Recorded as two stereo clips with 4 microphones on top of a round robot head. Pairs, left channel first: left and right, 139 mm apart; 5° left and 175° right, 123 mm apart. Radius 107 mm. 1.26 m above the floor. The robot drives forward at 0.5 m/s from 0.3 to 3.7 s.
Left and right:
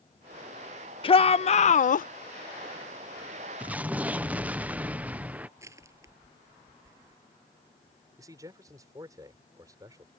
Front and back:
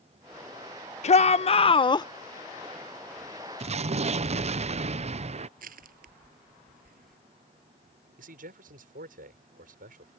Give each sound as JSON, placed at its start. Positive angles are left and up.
{"t": 1.0, "sound": "a shout", "azimuth_deg": 35}
{"t": 3.6, "sound": "an explosion", "azimuth_deg": -170}
{"t": 5.6, "sound": "crushing", "azimuth_deg": -165}
{"t": 8.2, "sound": "a man speaking", "azimuth_deg": -160}